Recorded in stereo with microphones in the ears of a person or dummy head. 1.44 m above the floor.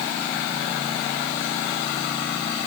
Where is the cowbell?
I don't hear a cowbell.